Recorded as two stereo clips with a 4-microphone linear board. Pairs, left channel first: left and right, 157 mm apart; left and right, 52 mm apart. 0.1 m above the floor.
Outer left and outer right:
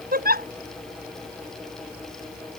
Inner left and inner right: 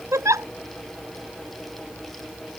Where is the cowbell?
I don't hear a cowbell.